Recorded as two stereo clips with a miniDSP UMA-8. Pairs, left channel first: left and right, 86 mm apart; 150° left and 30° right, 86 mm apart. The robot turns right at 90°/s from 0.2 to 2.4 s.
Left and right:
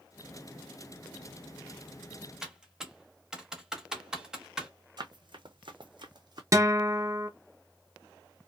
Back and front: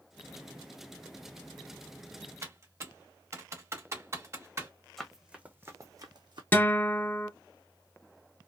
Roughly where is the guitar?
Behind right.